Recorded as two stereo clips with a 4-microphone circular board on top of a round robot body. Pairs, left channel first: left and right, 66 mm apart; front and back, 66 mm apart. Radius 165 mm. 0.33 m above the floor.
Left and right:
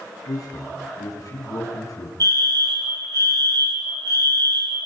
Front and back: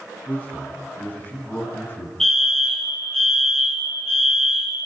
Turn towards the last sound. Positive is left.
turn(degrees=-80)